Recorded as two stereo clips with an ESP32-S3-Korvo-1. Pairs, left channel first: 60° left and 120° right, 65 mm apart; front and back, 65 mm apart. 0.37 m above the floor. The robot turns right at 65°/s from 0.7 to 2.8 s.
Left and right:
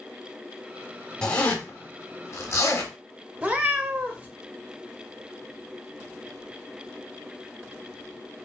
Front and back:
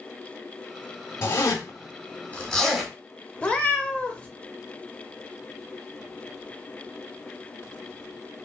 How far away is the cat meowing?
About 0.6 m.